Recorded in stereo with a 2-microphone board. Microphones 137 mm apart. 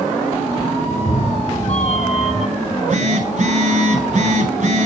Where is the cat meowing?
55° left (ahead or behind), 2.5 m.